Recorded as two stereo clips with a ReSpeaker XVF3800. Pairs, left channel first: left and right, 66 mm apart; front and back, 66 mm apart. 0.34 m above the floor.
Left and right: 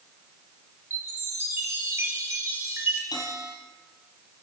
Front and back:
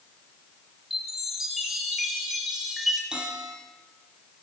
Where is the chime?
95° right, 1.3 m.